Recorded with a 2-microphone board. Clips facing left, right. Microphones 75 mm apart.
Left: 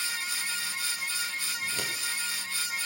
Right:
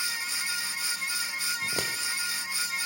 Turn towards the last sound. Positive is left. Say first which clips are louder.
# right 2 dB
turn(degrees=-45)  # may be behind; listen again after turning